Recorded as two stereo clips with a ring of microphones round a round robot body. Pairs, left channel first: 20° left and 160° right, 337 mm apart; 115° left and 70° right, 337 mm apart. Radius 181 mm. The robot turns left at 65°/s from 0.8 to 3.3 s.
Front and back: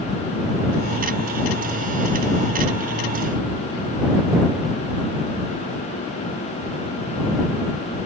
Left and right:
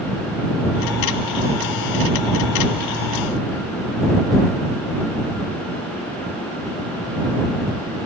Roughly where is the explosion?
No explosion in this recording.